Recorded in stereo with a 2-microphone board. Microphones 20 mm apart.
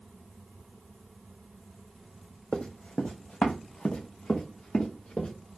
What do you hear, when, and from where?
2.5 s running footsteps: 50° left (ahead or behind), 0.5 m; by 5.3 s 55° left (ahead or behind), 1.6 m